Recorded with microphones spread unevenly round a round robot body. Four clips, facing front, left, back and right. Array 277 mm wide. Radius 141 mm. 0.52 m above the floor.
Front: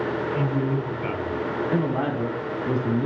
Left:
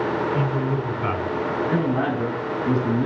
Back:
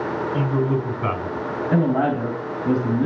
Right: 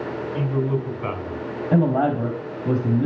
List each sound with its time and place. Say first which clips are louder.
0.3 s a man speaking: even, back 6 dB; 170° left, 6 m
1.7 s a man speaking: right 7 dB, back 7 dB; 135° right, 4.5 m